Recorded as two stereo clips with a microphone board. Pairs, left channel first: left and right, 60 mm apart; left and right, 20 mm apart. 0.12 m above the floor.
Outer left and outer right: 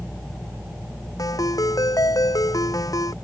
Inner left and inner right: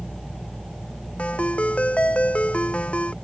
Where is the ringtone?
80° left.